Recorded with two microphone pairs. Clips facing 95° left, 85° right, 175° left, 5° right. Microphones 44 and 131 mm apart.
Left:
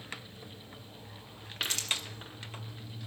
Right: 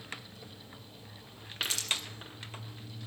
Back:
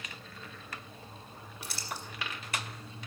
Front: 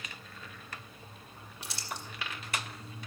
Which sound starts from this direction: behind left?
Crumpling, at 1.6 s.